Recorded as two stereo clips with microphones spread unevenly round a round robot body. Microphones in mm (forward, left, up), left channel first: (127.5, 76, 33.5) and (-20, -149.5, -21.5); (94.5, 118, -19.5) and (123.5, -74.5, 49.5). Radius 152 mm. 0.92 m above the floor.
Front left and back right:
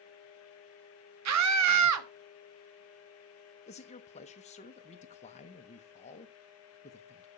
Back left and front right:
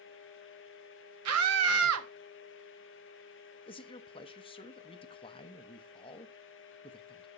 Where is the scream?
115° right, 1.4 m.